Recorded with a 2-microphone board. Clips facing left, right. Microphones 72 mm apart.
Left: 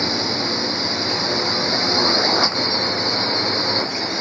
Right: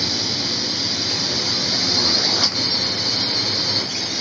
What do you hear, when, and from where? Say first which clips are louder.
0.0 s a drone: left 4 dB; 30° left (ahead or behind)